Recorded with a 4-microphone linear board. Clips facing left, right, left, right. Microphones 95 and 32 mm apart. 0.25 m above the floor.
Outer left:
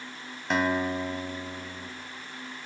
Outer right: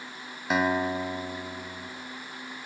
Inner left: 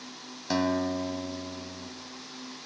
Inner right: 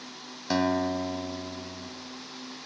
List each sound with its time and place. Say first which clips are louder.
0.5 s a guitar: outer right 1 dB, inner right 1 dB; 5° right (ahead or behind), 1.0 m